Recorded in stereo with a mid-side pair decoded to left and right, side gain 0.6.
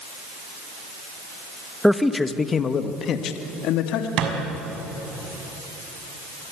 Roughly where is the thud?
Ahead right.